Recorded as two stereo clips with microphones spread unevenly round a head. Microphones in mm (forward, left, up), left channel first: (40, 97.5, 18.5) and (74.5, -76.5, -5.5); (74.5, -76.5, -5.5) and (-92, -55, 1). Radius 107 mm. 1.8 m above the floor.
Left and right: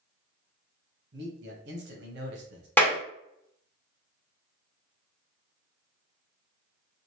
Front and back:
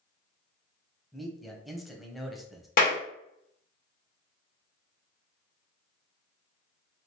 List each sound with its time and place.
1.1 s a man speaking: 100° right, 1.0 m
2.8 s a clap: 30° left, 1.1 m